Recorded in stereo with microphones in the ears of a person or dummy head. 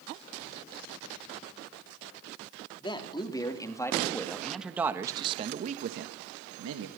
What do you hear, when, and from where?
2.8 s a man speaking: 30° left (ahead or behind), 2.5 m; by 6.9 s 80° right, 1.6 m